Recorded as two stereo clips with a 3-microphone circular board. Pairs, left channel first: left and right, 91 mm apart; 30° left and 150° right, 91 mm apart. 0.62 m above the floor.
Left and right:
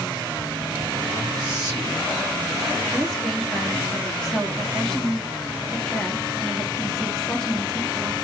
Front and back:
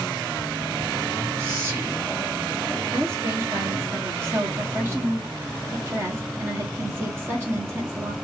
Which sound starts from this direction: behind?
A woman speaking, at 2.9 s.